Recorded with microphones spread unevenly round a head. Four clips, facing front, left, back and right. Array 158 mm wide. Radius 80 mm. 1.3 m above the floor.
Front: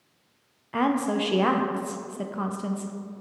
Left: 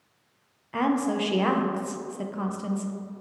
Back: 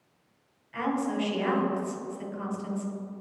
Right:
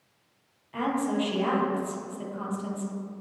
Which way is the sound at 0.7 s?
25° left.